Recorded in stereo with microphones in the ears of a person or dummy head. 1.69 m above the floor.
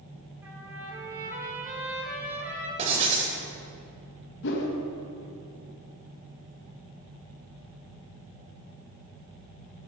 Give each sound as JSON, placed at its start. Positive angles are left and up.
{"t": 0.4, "sound": "a trumpet", "side_deg": -15, "distance_m": 3.5}
{"t": 2.8, "sound": "writing", "side_deg": -35, "distance_m": 3.0}
{"t": 4.4, "sound": "a whoosh", "side_deg": 60, "distance_m": 2.0}